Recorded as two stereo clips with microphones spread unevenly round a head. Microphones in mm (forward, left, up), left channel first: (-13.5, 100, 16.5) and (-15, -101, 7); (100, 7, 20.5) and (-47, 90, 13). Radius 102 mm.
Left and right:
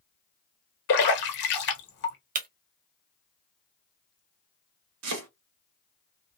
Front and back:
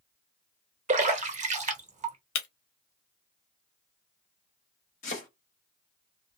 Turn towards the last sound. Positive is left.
turn(degrees=-85)